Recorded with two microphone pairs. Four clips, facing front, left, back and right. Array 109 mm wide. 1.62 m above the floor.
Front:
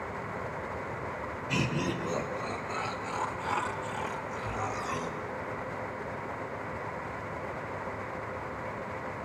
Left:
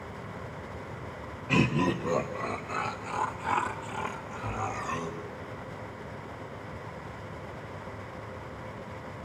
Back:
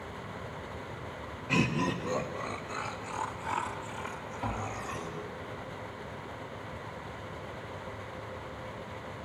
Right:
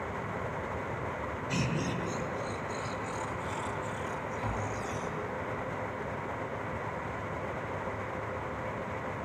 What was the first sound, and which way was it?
Laughter, 105° left.